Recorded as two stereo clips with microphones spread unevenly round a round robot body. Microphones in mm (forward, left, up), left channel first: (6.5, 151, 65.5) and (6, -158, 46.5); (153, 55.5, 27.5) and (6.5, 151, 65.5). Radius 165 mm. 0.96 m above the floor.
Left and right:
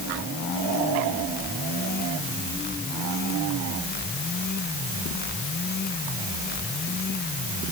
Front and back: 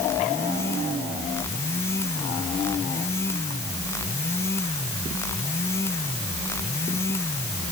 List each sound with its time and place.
Only background noise.